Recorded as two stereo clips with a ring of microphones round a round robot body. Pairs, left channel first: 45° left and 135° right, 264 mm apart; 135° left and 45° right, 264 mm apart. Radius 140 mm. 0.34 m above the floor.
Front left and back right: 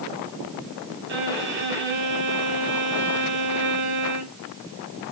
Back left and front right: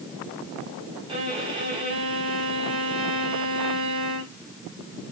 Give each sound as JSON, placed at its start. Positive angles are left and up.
{"t": 1.1, "sound": "a violin", "azimuth_deg": -110, "distance_m": 1.9}